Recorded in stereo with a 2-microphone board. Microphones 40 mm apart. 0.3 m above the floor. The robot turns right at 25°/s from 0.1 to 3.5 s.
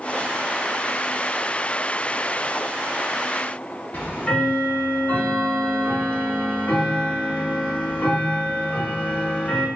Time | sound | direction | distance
3.9 | ticking | 35° left (ahead or behind) | 1.0 m